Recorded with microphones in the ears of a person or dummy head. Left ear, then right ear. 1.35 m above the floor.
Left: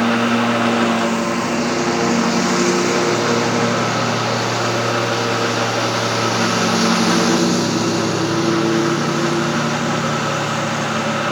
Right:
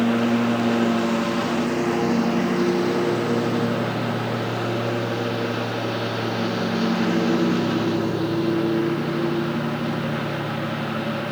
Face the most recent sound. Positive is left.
turn(degrees=80)